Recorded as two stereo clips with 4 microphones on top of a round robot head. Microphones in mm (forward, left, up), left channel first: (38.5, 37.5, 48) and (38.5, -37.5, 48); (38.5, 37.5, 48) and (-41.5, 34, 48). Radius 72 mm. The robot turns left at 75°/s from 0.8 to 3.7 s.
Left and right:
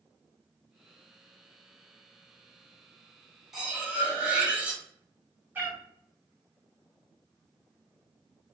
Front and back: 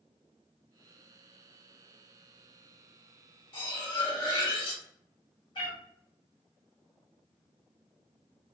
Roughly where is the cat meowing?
Ahead right.